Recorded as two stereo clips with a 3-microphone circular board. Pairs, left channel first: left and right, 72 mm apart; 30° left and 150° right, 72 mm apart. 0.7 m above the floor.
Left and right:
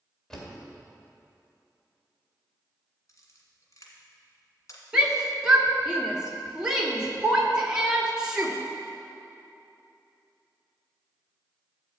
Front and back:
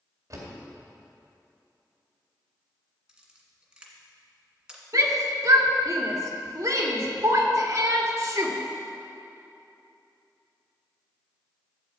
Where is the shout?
170° right, 1.6 m.